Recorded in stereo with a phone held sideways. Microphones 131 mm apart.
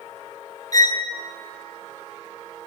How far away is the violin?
About 0.8 m.